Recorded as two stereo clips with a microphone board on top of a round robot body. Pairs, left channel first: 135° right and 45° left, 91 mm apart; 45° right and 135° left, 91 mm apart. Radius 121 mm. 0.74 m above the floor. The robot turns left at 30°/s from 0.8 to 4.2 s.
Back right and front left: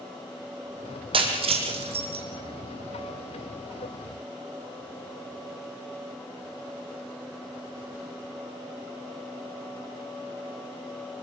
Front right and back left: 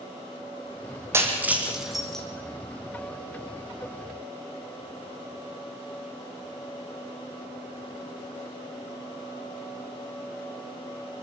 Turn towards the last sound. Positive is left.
turn(degrees=-20)